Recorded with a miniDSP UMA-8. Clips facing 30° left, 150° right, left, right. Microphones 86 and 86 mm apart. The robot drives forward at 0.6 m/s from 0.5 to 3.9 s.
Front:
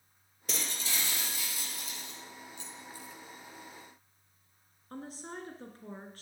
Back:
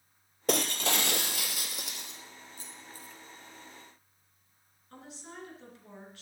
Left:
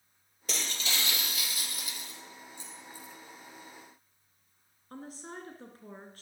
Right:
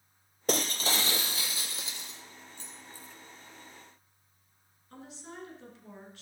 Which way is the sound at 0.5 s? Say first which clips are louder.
Back 10 dB, right 7 dB; 130° right.